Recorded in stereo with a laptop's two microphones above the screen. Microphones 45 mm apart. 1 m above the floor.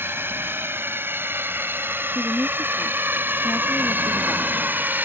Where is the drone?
55° right (ahead or behind); by 5.1 s 45° right (ahead or behind).